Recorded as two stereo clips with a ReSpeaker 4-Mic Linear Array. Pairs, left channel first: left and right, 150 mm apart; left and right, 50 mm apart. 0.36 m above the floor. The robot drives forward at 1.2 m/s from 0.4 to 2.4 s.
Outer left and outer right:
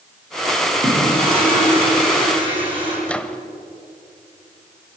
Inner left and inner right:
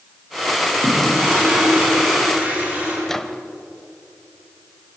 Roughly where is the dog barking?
No dog barking in this recording.